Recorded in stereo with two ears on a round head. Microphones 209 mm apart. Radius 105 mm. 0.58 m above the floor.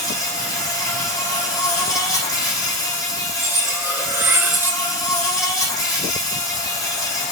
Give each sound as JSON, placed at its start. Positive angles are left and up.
{"t": 0.0, "sound": "an insect", "side_deg": 15, "distance_m": 4.5}
{"t": 3.4, "sound": "cutlery clinking", "side_deg": -10, "distance_m": 1.0}